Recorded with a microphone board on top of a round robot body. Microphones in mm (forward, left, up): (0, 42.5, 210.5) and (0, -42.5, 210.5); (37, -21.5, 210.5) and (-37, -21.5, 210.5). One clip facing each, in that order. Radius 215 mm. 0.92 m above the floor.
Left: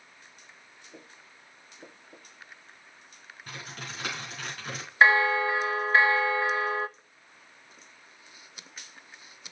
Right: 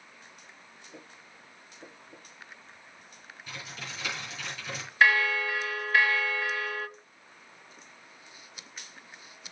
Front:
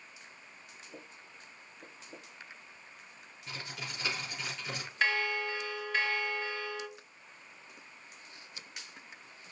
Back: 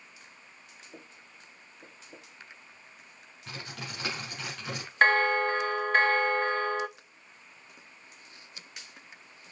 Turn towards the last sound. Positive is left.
turn(degrees=150)